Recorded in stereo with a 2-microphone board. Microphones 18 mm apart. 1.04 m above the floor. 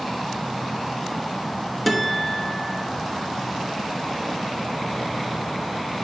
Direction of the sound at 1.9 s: 5° left (ahead or behind).